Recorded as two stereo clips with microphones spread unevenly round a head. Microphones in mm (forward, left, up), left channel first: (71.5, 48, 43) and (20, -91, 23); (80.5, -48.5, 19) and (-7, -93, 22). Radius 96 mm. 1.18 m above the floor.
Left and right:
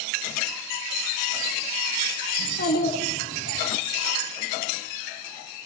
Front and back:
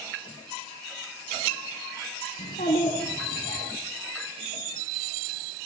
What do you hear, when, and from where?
2.4 s a child speaking: 70° left, 7.5 m; by 3.6 s 75° left, 7 m